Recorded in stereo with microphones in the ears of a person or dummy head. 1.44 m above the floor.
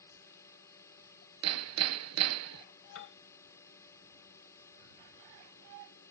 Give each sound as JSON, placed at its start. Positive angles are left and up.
{"t": 0.0, "sound": "a drone", "side_deg": 15}
{"t": 1.4, "sound": "hammering", "side_deg": -85}
{"t": 3.0, "sound": "a piano", "side_deg": 75}